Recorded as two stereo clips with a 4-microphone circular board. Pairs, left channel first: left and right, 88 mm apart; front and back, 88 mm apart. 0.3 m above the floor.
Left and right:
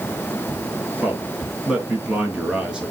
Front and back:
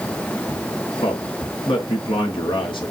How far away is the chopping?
I don't hear chopping.